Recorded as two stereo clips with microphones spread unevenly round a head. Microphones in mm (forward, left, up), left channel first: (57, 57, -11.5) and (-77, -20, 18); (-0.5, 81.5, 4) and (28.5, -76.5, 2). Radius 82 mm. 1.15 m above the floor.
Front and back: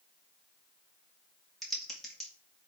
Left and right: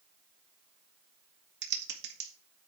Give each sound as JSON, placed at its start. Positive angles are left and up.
{"t": 1.6, "sound": "typing on a keyboard", "azimuth_deg": -60, "distance_m": 1.9}